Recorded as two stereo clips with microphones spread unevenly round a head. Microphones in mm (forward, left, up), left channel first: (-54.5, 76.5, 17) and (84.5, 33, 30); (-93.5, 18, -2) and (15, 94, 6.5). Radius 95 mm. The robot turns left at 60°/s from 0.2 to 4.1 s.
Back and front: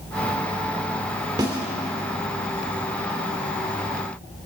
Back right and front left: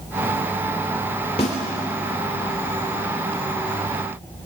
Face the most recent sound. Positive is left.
turn(degrees=115)